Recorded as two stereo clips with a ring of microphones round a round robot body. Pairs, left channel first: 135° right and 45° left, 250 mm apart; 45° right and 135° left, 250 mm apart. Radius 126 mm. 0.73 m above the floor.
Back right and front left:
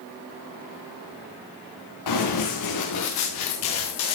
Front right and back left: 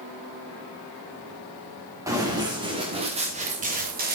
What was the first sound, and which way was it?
Running footsteps, 145° right.